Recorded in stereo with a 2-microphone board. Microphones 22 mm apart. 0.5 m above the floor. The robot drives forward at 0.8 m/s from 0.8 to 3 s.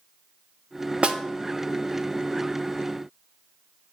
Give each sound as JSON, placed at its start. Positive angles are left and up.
{"t": 1.0, "sound": "a snare drum", "side_deg": -55, "distance_m": 0.7}